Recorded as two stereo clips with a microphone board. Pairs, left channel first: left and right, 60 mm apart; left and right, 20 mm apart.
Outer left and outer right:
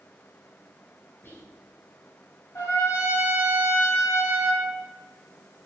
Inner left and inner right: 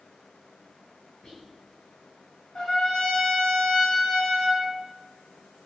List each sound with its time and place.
1.2 s whispering: 35° left (ahead or behind), 2.5 m
2.5 s a trumpet: 55° left (ahead or behind), 2 m